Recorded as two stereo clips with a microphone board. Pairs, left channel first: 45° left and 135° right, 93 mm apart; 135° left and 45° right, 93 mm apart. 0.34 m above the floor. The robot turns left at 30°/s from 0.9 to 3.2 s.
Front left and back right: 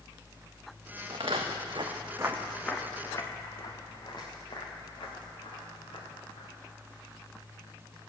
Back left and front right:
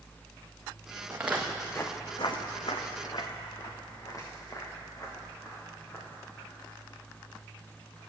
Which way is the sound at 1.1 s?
110° right.